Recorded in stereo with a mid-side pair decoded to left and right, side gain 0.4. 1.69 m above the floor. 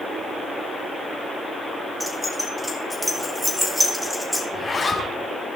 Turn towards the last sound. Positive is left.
turn(degrees=35)